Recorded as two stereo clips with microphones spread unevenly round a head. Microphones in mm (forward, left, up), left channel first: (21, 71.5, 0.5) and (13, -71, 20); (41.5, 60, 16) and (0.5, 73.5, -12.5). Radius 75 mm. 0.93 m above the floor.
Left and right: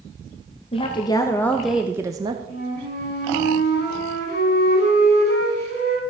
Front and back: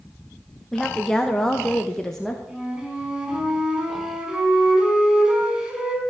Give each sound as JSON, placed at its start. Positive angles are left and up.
{"t": 0.7, "sound": "a woman speaking", "azimuth_deg": 95, "distance_m": 1.1}
{"t": 2.5, "sound": "a flute", "azimuth_deg": 95, "distance_m": 4.5}